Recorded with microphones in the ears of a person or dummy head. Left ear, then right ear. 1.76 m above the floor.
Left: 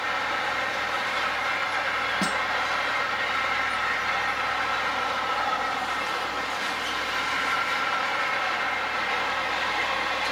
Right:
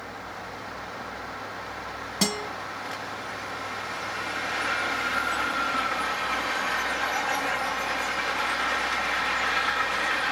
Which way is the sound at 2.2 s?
70° right (ahead or behind).